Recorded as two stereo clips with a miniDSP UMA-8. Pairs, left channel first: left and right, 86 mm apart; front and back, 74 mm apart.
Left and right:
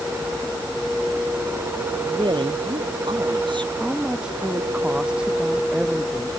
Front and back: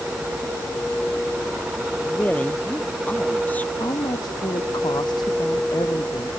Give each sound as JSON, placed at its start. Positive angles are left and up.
{"t": 2.0, "sound": "a woman speaking", "azimuth_deg": -70}
{"t": 3.8, "sound": "a woman speaking", "azimuth_deg": -10}